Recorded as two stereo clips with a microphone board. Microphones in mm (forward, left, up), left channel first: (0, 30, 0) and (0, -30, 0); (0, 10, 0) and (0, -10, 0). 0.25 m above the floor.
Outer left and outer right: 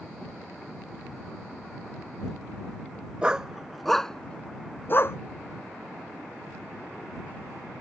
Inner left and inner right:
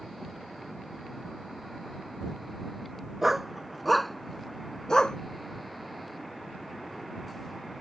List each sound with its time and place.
3.2 s a dog barking: 20° right (ahead or behind); by 5.2 s 50° left (ahead or behind)